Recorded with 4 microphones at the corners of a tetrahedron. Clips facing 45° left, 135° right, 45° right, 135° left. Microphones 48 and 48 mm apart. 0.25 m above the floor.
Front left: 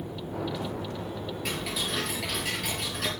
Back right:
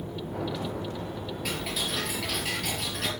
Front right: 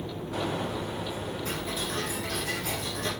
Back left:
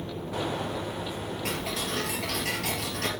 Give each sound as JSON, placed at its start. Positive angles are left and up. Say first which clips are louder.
{"t": 1.4, "sound": "ticking", "louder": "even, back left 3 dB", "azimuth_deg": 135, "distance_m": 3.5}